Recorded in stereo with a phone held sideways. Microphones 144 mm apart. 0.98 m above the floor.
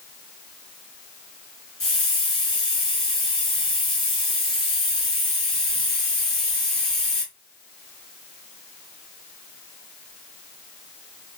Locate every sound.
1.8 s a hiss: 40° left (ahead or behind), 2.5 m